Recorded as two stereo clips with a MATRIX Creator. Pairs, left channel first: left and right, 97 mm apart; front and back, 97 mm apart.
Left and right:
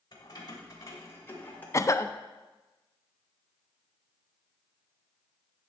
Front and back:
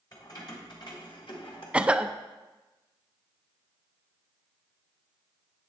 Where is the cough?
110° left, 0.5 m.